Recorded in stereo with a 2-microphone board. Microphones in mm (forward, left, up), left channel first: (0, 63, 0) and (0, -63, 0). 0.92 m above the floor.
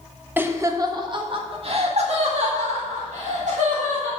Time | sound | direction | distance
0.4 | laughter | 15° right (ahead or behind) | 1.2 m